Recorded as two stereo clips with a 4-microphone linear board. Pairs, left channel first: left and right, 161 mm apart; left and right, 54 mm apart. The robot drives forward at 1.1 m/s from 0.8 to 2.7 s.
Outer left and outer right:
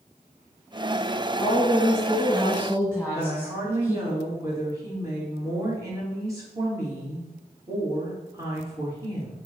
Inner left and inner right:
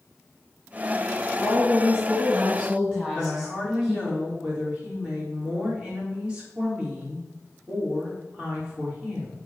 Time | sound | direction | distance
1.4 | a woman speaking | 5° right (ahead or behind) | 3 m
3.1 | a woman speaking | 20° right (ahead or behind) | 3 m